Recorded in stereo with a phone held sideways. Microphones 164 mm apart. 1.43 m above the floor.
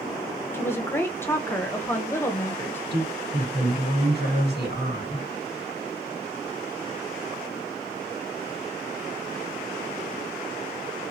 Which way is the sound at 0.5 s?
15° left (ahead or behind).